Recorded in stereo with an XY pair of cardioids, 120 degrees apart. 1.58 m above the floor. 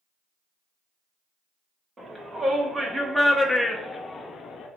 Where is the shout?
25° right, 1.6 m; by 4.7 s 65° left, 0.7 m.